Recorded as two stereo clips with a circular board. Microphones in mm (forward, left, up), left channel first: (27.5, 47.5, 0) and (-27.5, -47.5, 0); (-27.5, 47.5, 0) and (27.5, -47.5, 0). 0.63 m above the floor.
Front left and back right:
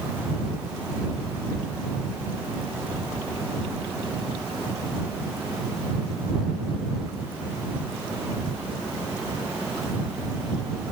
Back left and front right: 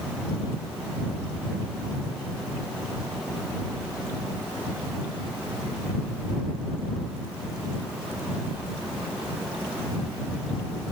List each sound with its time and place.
Only background noise.